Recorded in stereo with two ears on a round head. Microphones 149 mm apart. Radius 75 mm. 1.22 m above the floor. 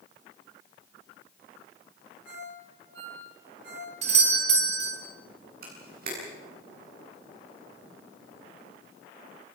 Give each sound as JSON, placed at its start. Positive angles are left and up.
{"t": 2.2, "sound": "a ringtone", "side_deg": -85, "distance_m": 10.0}
{"t": 4.0, "sound": "a doorbell", "side_deg": -40, "distance_m": 3.0}
{"t": 5.6, "sound": "a camera shutter", "side_deg": -55, "distance_m": 9.0}